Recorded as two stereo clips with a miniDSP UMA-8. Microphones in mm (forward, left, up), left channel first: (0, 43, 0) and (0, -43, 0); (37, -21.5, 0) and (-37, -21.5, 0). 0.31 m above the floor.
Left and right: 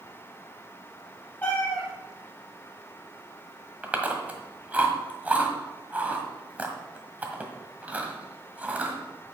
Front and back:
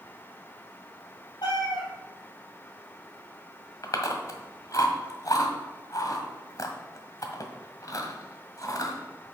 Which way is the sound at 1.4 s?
20° left.